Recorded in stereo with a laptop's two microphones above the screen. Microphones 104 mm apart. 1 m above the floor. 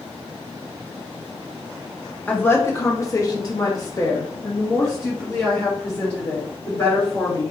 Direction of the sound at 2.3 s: 15° left (ahead or behind).